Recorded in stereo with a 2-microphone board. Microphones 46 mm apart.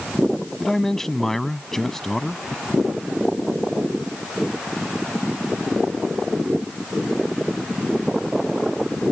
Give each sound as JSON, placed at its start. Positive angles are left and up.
{"t": 0.6, "sound": "a man speaking", "side_deg": 10}